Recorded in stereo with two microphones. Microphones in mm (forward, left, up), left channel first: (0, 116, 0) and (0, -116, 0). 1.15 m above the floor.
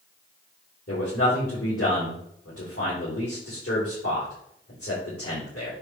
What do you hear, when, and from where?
0.9 s a man speaking: 75° left (ahead or behind), 4 m